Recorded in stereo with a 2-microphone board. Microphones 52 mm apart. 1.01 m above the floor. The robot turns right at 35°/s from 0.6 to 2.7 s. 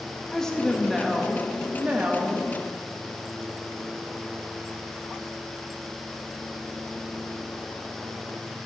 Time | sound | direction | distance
0.3 | a woman speaking | 170° left | 1.6 m